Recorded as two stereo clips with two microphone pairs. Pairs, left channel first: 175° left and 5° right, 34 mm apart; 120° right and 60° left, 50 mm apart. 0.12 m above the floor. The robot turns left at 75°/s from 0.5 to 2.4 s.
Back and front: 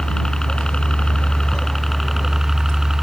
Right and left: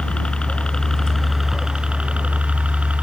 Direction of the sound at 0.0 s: 155° right.